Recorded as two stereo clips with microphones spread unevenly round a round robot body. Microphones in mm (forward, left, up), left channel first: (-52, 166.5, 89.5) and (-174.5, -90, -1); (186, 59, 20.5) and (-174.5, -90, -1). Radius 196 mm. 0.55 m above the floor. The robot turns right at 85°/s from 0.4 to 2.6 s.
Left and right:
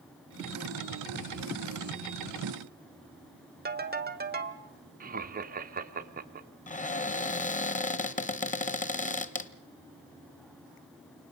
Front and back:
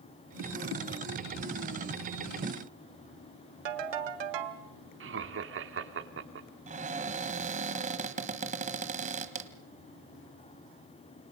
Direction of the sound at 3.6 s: 160° right.